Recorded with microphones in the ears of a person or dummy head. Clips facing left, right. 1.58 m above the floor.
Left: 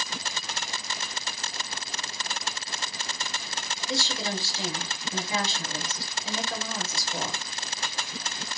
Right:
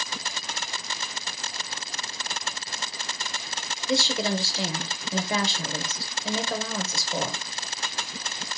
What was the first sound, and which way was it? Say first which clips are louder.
A woman speaking: right 6 dB; 50° right (ahead or behind).